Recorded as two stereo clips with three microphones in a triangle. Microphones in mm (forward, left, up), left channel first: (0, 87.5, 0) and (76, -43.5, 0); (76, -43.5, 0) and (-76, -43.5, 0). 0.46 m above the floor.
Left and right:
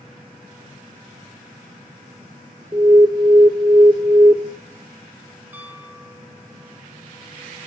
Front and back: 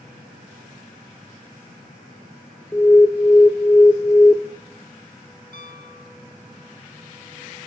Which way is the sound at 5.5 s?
15° left.